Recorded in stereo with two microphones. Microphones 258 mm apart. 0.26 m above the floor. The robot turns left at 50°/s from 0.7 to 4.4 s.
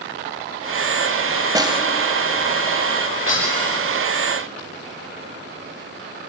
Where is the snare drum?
15° right (ahead or behind), 1.4 m; by 1.8 s 20° right (ahead or behind), 1.4 m.